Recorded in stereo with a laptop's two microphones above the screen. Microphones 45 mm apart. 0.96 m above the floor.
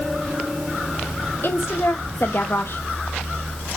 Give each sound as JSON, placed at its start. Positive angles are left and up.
{"t": 1.4, "sound": "a woman speaking", "side_deg": 65, "distance_m": 1.5}